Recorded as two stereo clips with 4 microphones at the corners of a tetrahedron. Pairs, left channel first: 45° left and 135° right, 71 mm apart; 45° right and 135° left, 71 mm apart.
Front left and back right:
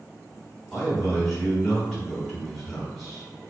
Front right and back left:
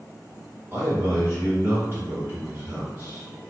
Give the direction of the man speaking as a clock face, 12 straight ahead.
7 o'clock.